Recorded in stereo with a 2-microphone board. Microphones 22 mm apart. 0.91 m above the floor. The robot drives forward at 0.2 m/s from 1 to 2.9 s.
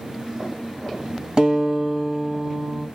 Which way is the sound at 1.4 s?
40° right (ahead or behind).